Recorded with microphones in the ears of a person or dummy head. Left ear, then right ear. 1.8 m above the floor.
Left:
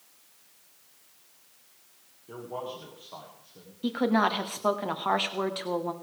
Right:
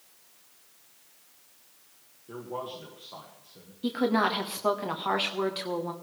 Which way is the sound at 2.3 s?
5° left (ahead or behind).